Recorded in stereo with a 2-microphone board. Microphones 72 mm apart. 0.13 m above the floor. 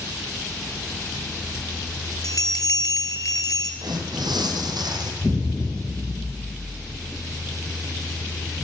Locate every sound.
2.2 s a bell: 60° left (ahead or behind), 0.9 m
3.8 s tearing paper: 75° right (ahead or behind), 2 m
5.2 s an explosion: 15° right (ahead or behind), 3 m